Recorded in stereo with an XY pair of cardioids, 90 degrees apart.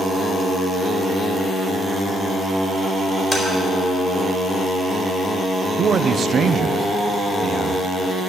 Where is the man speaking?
55° right, 0.7 m.